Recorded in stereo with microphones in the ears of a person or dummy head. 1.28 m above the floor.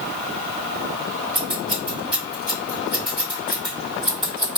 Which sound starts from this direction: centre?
Scissors, at 1.4 s.